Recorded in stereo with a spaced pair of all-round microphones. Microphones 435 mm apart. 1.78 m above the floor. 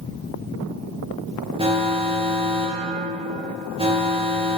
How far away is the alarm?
About 0.8 m.